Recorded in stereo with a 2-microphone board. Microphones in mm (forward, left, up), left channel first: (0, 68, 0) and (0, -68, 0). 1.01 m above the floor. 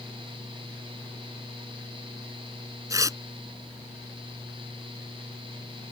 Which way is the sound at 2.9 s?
25° right (ahead or behind).